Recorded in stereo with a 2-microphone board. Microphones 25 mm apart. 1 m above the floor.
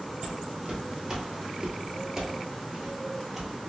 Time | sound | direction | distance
0.2 | footsteps | 15° right (ahead or behind) | 1.3 m